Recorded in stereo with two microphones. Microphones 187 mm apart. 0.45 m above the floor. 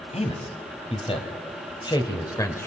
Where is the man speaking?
35° left (ahead or behind), 3 m; by 2.7 s 15° left (ahead or behind), 1.8 m.